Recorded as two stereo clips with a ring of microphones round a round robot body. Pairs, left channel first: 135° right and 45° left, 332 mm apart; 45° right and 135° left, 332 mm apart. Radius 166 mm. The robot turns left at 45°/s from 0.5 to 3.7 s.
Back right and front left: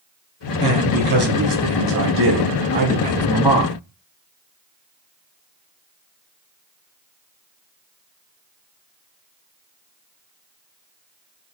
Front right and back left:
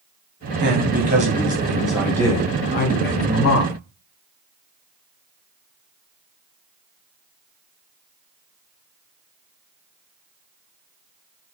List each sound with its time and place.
0.6 s a man speaking: 105° left, 1.2 m; by 3.8 s 35° right, 1.2 m